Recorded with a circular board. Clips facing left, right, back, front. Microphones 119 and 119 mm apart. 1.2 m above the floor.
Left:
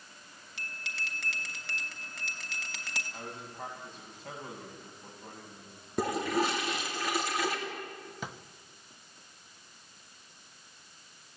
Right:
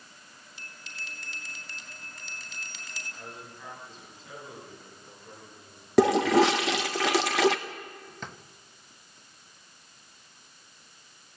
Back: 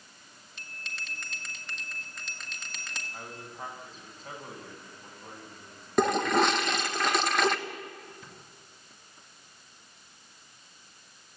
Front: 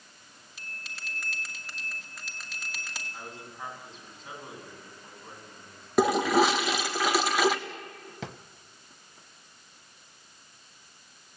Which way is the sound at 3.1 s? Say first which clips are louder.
Even, back 1 dB; 130° left.